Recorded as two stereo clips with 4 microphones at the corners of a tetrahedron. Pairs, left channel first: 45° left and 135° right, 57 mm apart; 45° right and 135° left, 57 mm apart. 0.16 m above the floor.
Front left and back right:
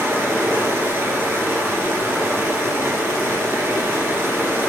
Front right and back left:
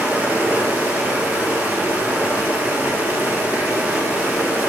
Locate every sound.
0.0 s running water: 170° right, 1.7 m